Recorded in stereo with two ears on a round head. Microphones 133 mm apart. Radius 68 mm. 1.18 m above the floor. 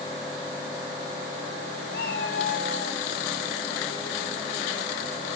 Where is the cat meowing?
75° left (ahead or behind), 5 m.